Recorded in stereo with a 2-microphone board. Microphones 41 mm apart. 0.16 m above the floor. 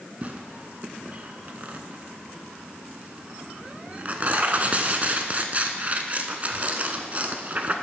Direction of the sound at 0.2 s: 35° right (ahead or behind).